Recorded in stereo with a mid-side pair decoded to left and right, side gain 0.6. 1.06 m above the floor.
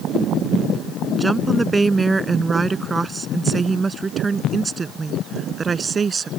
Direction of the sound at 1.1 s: 15° right.